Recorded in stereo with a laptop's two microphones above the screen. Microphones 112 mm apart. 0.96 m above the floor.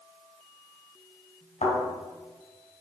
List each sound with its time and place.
1.6 s a thud: 85° left, 3.5 m